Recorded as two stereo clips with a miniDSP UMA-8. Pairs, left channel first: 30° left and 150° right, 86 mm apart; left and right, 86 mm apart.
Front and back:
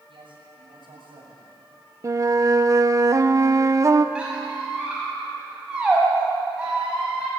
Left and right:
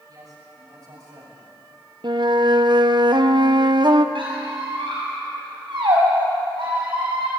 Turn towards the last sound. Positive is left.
turn(degrees=-70)